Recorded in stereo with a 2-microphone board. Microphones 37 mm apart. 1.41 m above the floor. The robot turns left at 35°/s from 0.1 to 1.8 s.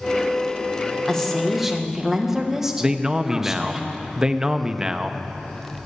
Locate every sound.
1.1 s a woman speaking: 15° left (ahead or behind), 1.6 m; by 3.8 s 10° right (ahead or behind), 1.6 m
2.8 s a man speaking: 20° right (ahead or behind), 0.7 m